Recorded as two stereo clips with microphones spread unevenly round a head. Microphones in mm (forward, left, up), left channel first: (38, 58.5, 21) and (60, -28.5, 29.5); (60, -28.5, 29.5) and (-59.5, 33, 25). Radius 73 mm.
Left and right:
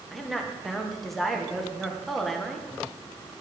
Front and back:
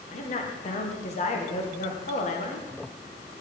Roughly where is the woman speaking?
Ahead.